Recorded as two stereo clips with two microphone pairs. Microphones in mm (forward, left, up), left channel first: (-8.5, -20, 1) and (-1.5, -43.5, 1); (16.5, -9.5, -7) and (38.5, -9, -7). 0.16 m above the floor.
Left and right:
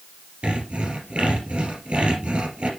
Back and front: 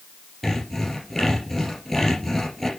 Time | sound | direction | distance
0.4 | sawing | 105° right | 4 m